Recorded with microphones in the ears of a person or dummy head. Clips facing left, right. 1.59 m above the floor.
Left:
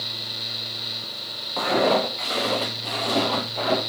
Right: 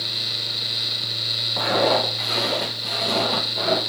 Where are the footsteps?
5° right (ahead or behind), 4.5 m; by 3.8 s 15° right (ahead or behind), 3.5 m.